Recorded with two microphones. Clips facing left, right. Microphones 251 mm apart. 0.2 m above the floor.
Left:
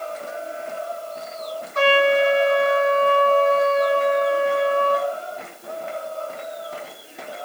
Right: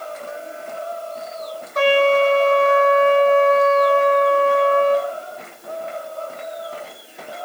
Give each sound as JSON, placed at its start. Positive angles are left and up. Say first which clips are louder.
{"t": 1.8, "sound": "a trumpet", "louder": "right 2 dB", "side_deg": -45, "distance_m": 1.1}